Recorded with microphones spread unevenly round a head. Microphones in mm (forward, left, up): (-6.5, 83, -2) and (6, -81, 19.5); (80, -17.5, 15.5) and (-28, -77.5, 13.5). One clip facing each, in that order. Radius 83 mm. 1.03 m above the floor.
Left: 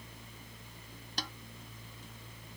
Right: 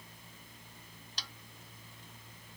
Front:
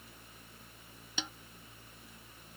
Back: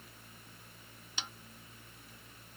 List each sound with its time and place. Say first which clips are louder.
1.2 s a snare drum: left 10 dB, front 4 dB; 50° left